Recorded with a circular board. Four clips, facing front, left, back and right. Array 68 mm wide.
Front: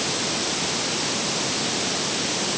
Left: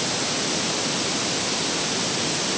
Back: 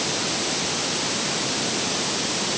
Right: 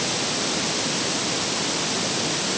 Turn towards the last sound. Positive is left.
No sound to turn to.